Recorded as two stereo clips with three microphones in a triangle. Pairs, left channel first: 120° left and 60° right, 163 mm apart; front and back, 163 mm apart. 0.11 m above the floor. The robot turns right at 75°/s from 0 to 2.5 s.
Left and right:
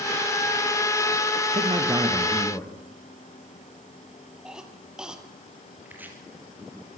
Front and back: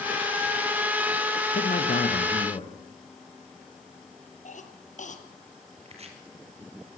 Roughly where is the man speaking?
Ahead.